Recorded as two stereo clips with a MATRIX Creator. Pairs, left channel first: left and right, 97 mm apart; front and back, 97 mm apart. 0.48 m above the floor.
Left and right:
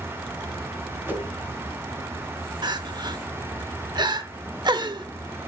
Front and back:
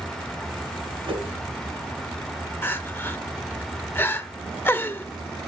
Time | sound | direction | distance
1.1 | a whoosh | 160° right | 3 m
2.6 | crying | 60° right | 0.9 m